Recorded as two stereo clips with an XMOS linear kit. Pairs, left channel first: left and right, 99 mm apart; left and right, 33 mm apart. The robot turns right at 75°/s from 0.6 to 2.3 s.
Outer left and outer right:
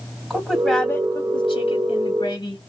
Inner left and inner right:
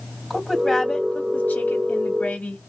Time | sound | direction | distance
0.3 | a woman speaking | 5° right | 2 m